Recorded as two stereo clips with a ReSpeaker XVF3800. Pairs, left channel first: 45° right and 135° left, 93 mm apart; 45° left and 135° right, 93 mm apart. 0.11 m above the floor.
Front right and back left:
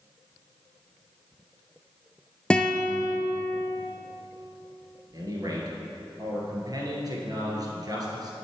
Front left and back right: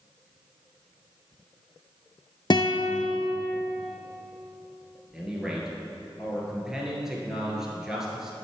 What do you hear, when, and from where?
2.5 s a guitar: 30° left, 0.5 m
5.1 s a man speaking: 145° left, 1.9 m